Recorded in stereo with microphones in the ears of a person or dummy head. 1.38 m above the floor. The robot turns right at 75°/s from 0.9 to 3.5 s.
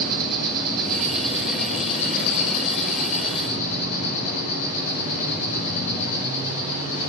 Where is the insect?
45° right, 7 m; by 7.1 s 150° left, 7 m.